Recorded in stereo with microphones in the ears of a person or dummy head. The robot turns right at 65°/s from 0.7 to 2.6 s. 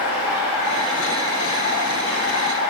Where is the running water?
15° right, 5 m; by 2.7 s 110° left, 5 m.